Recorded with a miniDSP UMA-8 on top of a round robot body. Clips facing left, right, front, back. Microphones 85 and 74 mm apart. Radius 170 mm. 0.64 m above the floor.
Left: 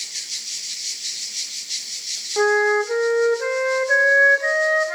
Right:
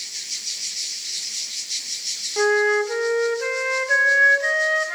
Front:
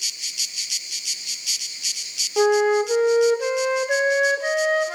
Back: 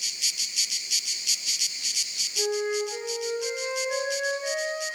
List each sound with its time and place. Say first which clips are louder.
2.4 s a flute: left 1 dB, front 10 dB; 15° left, 2 m